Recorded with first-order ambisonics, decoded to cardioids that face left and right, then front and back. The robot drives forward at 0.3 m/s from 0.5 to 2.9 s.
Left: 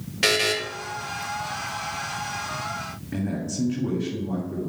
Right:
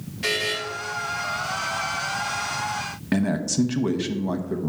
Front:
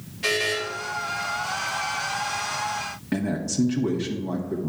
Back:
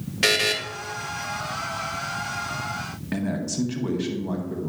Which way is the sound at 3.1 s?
95° right.